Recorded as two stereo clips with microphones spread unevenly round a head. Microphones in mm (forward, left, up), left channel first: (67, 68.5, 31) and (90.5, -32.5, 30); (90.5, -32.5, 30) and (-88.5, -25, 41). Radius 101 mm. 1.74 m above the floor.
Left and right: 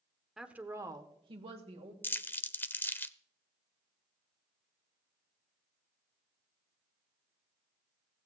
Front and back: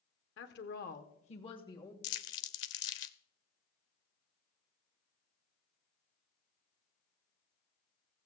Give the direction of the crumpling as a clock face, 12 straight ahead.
11 o'clock.